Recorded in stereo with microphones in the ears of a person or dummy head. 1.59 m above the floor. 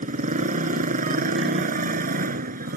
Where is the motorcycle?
40° right (ahead or behind); by 2.8 s 50° right (ahead or behind).